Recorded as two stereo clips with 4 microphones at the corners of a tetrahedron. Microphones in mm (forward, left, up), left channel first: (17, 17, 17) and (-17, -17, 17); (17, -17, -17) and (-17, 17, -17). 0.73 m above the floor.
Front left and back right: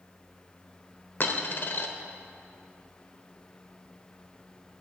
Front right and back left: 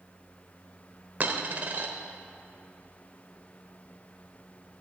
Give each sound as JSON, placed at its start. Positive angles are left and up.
{"t": 1.2, "sound": "a dropped coin", "azimuth_deg": 85, "distance_m": 1.1}